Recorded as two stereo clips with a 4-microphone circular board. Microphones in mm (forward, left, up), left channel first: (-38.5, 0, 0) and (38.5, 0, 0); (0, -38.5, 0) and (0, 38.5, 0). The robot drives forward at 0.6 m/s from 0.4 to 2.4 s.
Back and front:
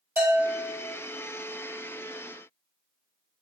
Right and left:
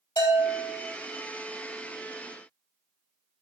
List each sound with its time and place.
0.2 s a bell: 65° right, 3.5 m; by 0.9 s 70° right, 3.5 m